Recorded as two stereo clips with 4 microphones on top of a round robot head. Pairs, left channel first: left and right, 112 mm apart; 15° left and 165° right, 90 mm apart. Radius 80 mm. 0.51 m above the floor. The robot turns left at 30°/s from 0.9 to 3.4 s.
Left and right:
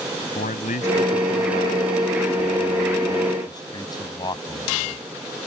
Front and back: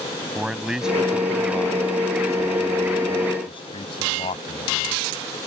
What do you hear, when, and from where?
0.3 s a man speaking: 110° left; by 5.0 s 35° left